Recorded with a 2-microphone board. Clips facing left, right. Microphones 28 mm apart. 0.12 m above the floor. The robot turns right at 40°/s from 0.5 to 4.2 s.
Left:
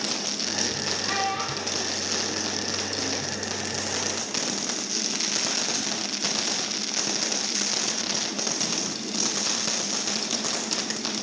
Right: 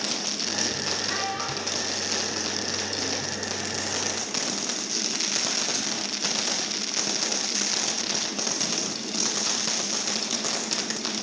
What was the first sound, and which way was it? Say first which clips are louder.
A child speaking: left 2 dB; 60° left (ahead or behind).